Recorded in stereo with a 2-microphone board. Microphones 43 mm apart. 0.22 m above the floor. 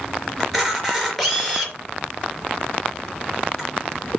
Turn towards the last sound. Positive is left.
turn(degrees=5)  # may be behind; listen again after turning